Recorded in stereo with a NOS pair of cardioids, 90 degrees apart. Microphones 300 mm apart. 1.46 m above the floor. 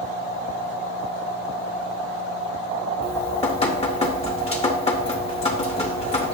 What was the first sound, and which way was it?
Dripping, 20° left.